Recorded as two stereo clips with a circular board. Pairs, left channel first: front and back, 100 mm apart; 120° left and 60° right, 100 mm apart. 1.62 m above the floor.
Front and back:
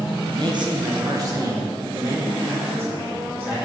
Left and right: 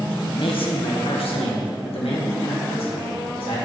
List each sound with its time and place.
0.3 s a man speaking: 145° left, 1.2 m; by 3.6 s 110° left, 3.5 m